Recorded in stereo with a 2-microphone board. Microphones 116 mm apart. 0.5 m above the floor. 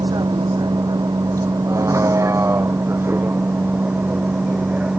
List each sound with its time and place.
0.0 s a vehicle: 35° right (ahead or behind); by 5.0 s 10° right (ahead or behind)